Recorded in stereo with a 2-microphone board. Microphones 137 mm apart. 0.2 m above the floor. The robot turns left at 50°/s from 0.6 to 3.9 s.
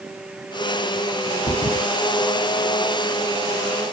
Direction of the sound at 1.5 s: 60° left (ahead or behind).